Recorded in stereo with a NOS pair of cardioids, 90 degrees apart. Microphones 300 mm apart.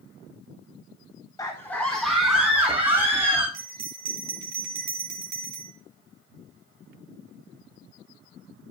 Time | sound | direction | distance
1.4 | a scream | 10° left | 1.1 m
3.5 | a bell | 60° right | 3 m